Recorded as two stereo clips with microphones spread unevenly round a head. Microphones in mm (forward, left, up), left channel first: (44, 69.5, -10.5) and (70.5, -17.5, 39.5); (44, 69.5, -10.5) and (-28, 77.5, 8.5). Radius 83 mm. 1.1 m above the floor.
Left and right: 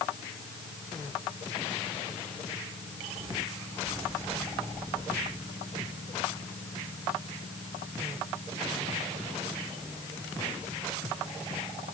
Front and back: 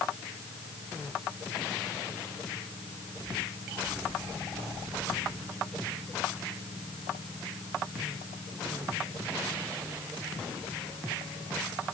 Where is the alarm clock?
No alarm clock in this recording.